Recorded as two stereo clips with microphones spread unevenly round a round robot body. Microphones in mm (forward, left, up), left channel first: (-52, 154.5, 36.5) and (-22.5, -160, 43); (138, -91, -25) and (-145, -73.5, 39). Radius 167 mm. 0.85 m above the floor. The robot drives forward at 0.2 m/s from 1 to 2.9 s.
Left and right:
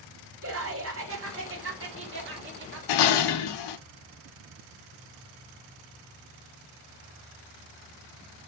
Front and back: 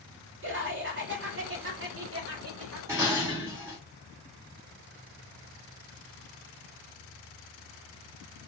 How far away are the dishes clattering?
About 0.6 m.